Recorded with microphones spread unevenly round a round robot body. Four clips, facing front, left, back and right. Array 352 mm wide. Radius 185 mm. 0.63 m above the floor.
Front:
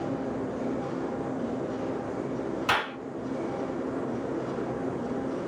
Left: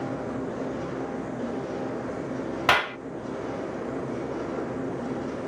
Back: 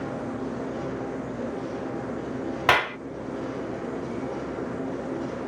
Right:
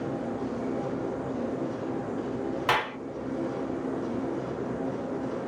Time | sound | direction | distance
2.7 | a clap | 130° left | 1.3 m